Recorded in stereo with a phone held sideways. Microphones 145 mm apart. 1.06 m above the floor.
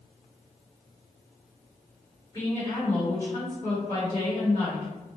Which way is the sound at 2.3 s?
35° left (ahead or behind).